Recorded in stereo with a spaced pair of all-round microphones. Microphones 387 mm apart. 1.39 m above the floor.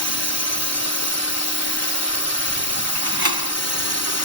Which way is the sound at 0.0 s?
45° left (ahead or behind).